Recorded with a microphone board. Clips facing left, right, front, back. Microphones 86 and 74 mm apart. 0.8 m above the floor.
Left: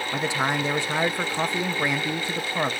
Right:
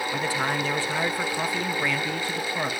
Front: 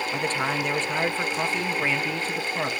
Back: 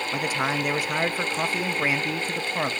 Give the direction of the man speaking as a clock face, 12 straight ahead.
8 o'clock.